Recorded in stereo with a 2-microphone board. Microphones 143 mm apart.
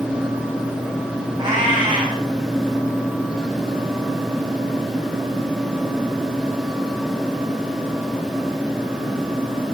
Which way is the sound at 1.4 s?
30° right (ahead or behind).